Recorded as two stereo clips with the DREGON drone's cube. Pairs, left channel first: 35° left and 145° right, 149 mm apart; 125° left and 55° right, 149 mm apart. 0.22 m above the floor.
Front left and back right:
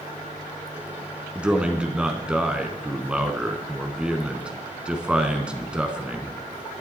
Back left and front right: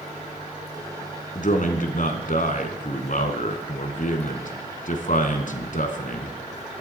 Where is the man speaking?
130° left, 2.5 m.